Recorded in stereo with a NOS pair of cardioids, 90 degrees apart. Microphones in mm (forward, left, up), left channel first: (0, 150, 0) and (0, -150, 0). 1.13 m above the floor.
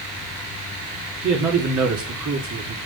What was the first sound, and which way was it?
A man speaking, 65° right.